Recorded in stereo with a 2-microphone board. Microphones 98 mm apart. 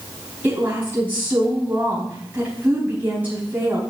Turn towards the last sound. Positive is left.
turn(degrees=-15)  # may be behind; listen again after turning